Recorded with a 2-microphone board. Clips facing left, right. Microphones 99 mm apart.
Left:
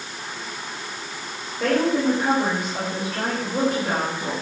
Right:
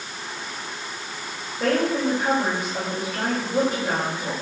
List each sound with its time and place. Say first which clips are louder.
1.6 s a woman speaking: left 2 dB; centre (ahead or behind), 4.5 m